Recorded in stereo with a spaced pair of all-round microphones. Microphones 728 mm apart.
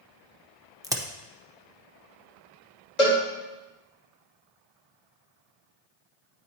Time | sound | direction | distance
0.8 | a crack | 5° right (ahead or behind) | 0.6 m
3.0 | a cowbell | 65° left (ahead or behind) | 1.8 m